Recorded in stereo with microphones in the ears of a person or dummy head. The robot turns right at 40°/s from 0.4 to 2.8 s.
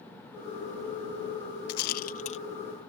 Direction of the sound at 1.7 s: 55° left (ahead or behind).